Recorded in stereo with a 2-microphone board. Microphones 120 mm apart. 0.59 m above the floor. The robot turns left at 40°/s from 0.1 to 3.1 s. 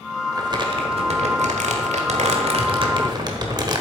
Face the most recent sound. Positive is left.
turn(degrees=-145)